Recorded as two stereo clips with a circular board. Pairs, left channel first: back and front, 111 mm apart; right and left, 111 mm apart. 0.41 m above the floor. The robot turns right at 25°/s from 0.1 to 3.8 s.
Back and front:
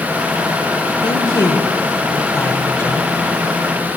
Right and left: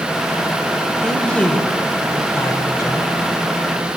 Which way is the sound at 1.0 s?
170° right.